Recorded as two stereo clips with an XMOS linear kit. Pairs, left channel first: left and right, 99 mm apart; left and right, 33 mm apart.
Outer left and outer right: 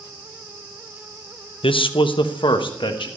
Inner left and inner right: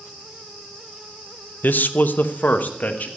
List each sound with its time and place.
1.6 s a man speaking: 70° left (ahead or behind), 0.7 m; by 3.1 s 60° left (ahead or behind), 1.5 m